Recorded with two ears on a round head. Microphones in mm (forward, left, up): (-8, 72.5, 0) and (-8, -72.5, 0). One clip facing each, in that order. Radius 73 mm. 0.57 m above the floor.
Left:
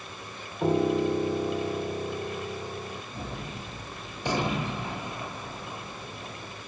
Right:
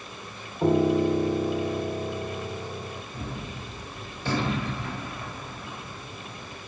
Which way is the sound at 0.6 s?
5° right (ahead or behind).